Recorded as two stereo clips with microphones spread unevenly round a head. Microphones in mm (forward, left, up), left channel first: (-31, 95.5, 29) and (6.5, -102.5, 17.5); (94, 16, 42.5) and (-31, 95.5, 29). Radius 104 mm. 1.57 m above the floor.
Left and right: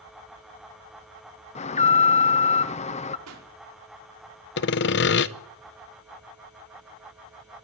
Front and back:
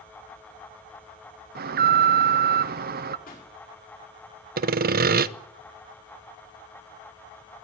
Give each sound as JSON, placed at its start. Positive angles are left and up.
{"t": 1.6, "sound": "an alarm", "azimuth_deg": 160, "distance_m": 1.0}
{"t": 3.3, "sound": "a pop", "azimuth_deg": -80, "distance_m": 4.5}
{"t": 4.6, "sound": "sawing", "azimuth_deg": 130, "distance_m": 0.9}